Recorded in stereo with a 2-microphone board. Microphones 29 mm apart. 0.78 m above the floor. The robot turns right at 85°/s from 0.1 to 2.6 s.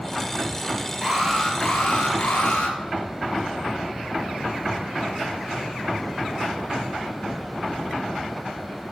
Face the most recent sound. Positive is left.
turn(degrees=115)